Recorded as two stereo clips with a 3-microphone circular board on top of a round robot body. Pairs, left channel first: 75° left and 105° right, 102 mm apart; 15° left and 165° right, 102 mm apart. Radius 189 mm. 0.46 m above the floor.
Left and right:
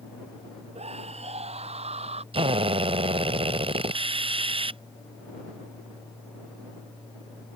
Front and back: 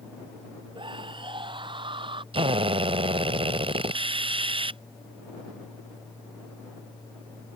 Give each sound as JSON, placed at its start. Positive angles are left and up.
{"t": 0.8, "sound": "a scream", "azimuth_deg": -120}
{"t": 2.3, "sound": "a drill", "azimuth_deg": -135}